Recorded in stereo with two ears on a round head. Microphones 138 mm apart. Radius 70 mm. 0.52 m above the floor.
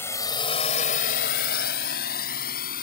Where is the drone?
15° left (ahead or behind); by 2.8 s 65° left (ahead or behind).